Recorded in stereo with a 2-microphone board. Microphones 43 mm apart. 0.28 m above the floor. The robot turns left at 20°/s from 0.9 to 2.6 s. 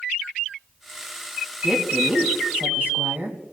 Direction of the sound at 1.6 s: 25° right (ahead or behind).